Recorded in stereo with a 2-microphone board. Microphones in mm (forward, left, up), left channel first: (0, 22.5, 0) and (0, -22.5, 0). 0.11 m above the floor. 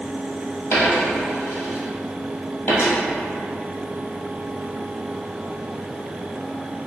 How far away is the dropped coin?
About 1.3 m.